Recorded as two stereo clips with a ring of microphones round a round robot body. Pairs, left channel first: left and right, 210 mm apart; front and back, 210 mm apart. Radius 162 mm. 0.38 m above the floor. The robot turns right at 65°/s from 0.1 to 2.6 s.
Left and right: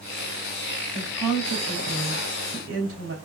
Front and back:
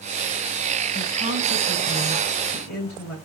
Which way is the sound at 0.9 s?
170° left.